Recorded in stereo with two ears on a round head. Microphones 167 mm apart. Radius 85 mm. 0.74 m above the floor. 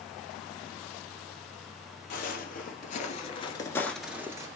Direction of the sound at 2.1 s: 50° left (ahead or behind).